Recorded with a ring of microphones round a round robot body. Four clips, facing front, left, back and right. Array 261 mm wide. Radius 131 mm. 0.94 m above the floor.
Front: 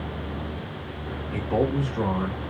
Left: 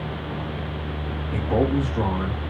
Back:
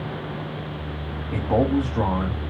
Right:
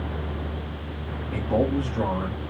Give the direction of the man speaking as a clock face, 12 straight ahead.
6 o'clock.